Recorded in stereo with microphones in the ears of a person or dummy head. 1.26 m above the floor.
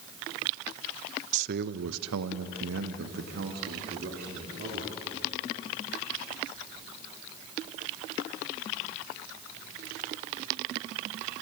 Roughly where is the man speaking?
Right.